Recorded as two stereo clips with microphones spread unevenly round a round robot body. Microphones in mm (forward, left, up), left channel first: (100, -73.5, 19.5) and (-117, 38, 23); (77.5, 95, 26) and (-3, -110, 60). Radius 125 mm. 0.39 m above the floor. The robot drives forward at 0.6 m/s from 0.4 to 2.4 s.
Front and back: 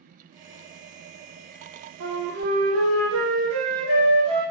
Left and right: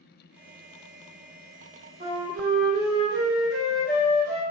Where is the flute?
175° left, 2.5 m.